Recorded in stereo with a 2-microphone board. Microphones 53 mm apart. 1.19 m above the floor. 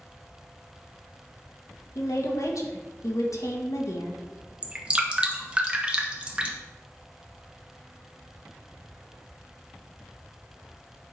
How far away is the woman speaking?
About 1.6 m.